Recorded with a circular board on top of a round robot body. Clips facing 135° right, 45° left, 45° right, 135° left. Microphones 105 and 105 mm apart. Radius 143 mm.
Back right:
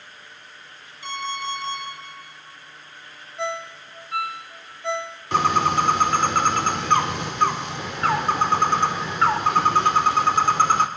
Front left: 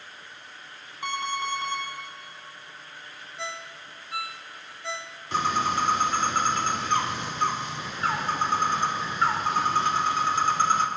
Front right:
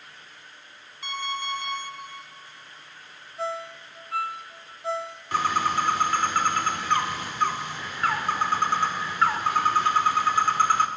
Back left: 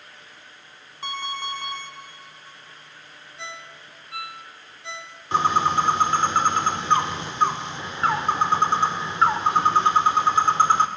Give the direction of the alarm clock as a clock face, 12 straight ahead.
9 o'clock.